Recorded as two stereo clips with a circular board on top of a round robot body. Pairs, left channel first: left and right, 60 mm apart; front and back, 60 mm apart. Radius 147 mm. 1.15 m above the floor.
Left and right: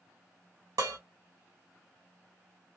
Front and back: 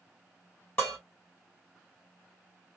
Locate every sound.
0.8 s dishes clattering: 65° right, 0.6 m